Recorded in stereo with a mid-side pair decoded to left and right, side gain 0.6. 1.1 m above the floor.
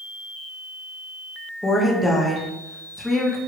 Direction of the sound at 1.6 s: 10° left.